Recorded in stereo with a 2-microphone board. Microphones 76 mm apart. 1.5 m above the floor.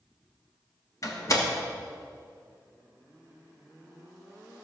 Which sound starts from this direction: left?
A door slam, at 1.0 s.